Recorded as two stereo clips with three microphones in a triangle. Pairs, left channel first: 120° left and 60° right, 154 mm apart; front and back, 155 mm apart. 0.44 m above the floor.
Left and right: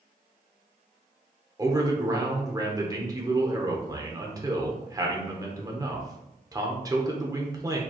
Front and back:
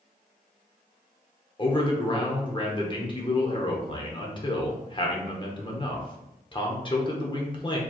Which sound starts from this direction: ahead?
A man speaking, at 1.6 s.